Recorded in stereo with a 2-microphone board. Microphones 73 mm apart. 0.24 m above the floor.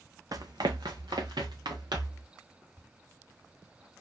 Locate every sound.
0.3 s running footsteps: 60° right (ahead or behind), 0.9 m; by 2.2 s 85° right, 3 m